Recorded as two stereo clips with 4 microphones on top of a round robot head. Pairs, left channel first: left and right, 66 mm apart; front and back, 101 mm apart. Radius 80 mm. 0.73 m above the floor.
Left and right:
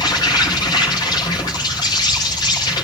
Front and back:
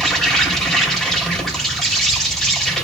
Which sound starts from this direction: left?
An insect, at 0.0 s.